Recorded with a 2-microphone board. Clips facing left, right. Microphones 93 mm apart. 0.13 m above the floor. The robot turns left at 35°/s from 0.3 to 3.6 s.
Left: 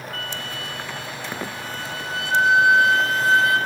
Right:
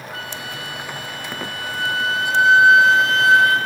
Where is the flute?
15° right, 5 m; by 3.6 s 130° right, 5 m.